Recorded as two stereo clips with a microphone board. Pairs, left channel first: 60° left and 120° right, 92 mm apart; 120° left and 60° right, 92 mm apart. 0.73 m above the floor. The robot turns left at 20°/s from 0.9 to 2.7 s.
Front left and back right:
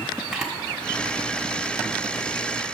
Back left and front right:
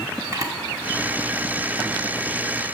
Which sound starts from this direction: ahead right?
A camera shutter, at 0.3 s.